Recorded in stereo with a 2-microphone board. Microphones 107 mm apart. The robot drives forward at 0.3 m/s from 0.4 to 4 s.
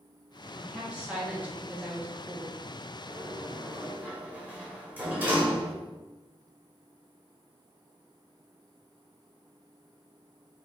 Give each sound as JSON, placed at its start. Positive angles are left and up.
{"t": 0.6, "sound": "a woman speaking", "side_deg": -10, "distance_m": 1.2}
{"t": 3.1, "sound": "a sliding door", "side_deg": -10, "distance_m": 1.1}